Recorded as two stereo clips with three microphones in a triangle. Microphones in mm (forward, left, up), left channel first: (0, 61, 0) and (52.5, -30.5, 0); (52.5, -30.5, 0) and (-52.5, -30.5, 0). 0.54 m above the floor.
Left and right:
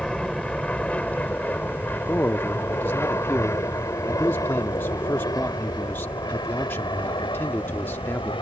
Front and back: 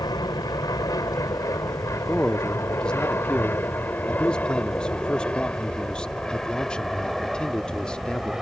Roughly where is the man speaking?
Left.